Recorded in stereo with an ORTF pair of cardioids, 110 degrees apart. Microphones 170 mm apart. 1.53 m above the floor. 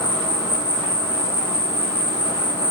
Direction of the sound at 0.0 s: 20° left.